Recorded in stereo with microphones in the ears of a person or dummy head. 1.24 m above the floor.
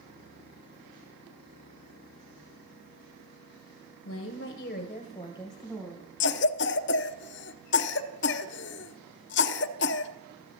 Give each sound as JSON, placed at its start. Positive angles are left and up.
{"t": 4.0, "sound": "a woman speaking", "side_deg": 65, "distance_m": 1.0}
{"t": 6.2, "sound": "a cough", "side_deg": 55, "distance_m": 0.6}